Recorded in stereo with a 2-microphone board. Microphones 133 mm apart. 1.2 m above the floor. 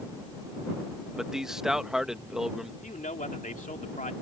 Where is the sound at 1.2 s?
5° right (ahead or behind).